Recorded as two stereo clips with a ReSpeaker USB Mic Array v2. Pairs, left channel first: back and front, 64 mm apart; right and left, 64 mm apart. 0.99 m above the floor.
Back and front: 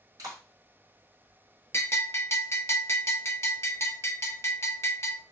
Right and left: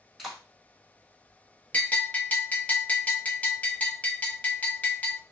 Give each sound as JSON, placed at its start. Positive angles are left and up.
{"t": 0.2, "sound": "a clap", "azimuth_deg": 5, "distance_m": 1.7}
{"t": 1.7, "sound": "a bell", "azimuth_deg": -150, "distance_m": 0.8}